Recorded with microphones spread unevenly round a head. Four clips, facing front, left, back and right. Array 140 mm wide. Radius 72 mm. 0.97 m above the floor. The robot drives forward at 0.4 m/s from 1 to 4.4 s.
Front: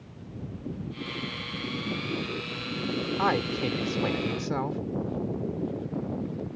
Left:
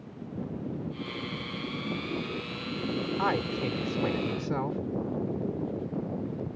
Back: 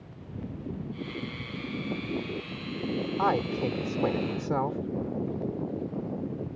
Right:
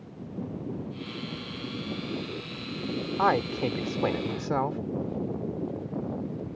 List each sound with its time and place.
3.2 s a man speaking: 100° right; by 4.8 s 110° right